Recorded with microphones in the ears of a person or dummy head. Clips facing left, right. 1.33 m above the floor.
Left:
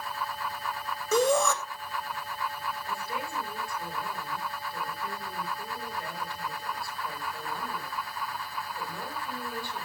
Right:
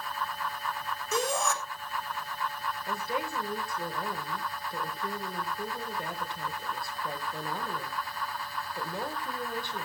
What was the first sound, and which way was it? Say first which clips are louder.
A shout: left 7 dB; 75° left (ahead or behind).